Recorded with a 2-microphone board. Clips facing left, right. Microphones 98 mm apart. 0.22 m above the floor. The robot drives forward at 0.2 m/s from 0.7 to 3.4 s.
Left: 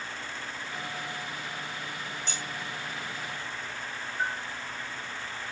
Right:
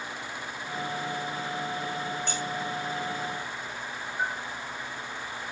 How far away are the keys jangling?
About 9.5 m.